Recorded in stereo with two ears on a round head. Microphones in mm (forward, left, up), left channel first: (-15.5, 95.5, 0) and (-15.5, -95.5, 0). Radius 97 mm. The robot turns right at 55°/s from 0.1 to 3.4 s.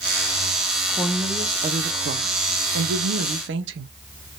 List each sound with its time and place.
0.9 s a woman speaking: 165° left, 0.5 m; by 3.9 s 55° right, 0.5 m